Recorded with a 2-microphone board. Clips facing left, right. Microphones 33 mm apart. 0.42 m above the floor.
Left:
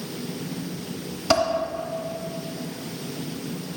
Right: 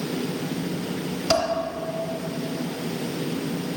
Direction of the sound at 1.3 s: 15° left (ahead or behind).